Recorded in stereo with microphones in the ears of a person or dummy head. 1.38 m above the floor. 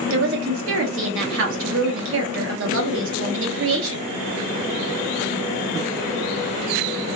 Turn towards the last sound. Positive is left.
turn(degrees=-70)  # may be behind; listen again after turning